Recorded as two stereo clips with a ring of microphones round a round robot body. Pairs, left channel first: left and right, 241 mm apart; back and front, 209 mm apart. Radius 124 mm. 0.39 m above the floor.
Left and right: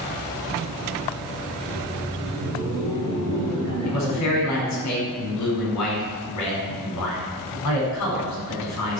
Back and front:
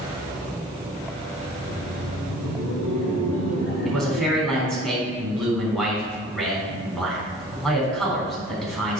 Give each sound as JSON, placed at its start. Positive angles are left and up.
{"t": 1.6, "sound": "laughter", "azimuth_deg": -175, "distance_m": 3.0}
{"t": 3.9, "sound": "a man speaking", "azimuth_deg": 90, "distance_m": 3.5}